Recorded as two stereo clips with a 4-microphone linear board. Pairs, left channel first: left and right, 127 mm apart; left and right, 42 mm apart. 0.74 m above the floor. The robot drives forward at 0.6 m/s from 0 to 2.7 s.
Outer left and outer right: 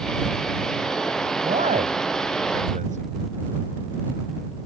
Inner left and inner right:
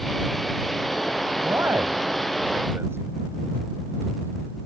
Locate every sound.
1.4 s a man speaking: 75° right (ahead or behind); by 3.1 s 80° right